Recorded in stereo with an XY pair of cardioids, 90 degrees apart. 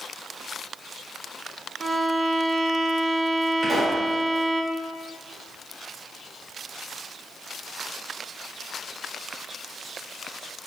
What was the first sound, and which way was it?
A violin, 40° right.